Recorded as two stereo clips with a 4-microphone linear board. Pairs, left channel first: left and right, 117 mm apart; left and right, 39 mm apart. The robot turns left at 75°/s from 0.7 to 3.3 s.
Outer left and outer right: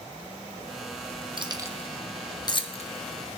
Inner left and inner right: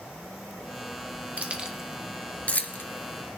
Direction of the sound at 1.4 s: 45° right (ahead or behind).